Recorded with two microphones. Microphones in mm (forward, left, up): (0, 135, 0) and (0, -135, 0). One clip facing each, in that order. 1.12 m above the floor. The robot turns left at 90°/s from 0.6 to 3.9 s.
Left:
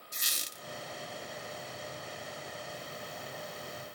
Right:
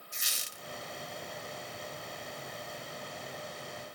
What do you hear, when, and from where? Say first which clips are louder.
0.1 s a squeak: left 2 dB; 45° left (ahead or behind), 0.5 m